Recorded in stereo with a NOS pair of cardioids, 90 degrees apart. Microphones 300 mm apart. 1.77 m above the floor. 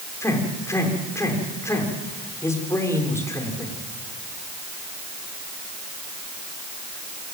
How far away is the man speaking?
About 6.5 m.